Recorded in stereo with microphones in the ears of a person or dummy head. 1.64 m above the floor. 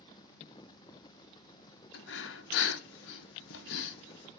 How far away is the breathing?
About 1.1 m.